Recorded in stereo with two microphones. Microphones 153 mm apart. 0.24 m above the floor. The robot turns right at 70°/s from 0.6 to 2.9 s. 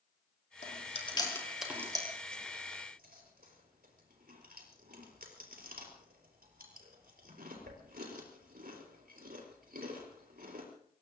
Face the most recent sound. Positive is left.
turn(degrees=-75)  # may be behind; listen again after turning